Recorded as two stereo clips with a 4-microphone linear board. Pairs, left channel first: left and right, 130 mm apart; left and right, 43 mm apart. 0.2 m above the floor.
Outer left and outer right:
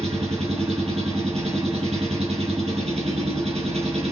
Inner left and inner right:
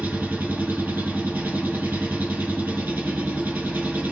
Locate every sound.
0.0 s an engine running: 50° right (ahead or behind), 3 m